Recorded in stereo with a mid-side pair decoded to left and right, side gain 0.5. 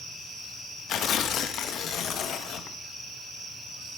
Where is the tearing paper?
65° left, 1.3 m.